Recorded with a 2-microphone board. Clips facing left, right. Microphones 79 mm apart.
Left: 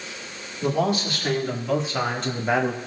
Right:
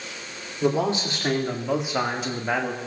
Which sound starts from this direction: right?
A man speaking, at 0.6 s.